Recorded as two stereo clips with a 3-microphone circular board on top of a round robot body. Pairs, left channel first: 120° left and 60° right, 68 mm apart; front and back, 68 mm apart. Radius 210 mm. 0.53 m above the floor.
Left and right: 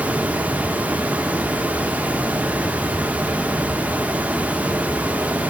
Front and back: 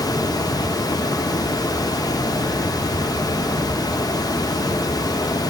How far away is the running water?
About 1.4 m.